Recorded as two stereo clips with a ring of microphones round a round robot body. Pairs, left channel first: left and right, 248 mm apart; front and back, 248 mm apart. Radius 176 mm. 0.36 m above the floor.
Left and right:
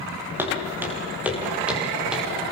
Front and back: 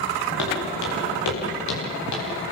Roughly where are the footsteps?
Ahead.